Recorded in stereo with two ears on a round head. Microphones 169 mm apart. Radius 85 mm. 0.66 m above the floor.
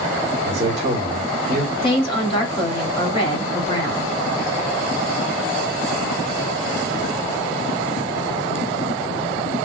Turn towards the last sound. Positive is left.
turn(degrees=25)  # may be behind; listen again after turning